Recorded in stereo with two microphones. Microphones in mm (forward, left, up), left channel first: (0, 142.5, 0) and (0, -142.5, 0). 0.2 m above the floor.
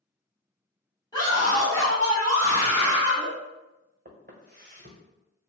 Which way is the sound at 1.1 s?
15° left (ahead or behind).